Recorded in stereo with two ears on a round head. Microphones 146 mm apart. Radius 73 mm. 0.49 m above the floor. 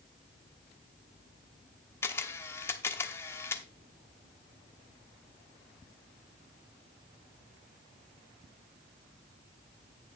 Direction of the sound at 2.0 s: 15° left (ahead or behind).